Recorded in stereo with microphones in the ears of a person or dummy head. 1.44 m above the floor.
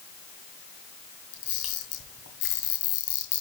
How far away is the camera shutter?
About 2 m.